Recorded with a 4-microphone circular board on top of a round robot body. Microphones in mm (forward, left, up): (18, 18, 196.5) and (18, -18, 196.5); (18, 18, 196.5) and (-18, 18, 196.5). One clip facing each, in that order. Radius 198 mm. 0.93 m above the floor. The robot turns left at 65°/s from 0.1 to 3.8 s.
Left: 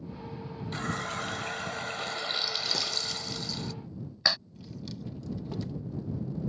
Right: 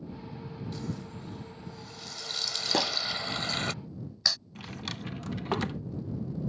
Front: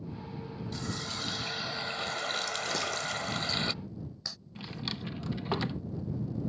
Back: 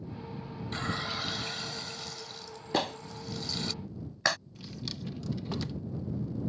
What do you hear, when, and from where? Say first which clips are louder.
0.7 s a running tap: left 9 dB, back 5 dB; 135° left; by 3.7 s 65° right
2.7 s a clap: right 4 dB, even; 135° right; by 4.4 s 155° left
4.5 s a drawer: right 3 dB, front 3 dB; 60° right